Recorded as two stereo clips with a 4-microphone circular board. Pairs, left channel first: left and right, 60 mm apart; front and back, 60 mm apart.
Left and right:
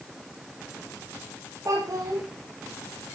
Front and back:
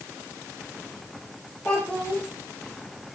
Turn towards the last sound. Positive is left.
turn(degrees=-70)